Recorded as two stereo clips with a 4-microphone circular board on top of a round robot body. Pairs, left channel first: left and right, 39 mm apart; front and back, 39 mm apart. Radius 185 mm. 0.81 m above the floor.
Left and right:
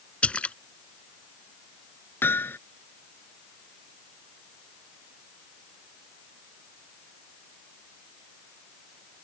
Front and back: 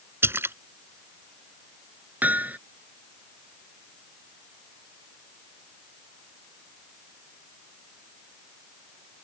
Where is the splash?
155° left.